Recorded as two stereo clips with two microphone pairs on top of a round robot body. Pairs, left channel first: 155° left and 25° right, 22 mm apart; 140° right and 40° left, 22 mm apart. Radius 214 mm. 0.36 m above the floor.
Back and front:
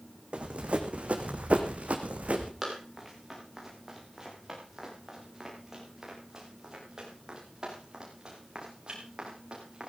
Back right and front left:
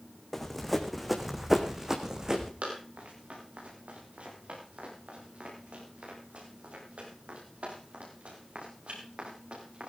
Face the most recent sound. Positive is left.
turn(degrees=25)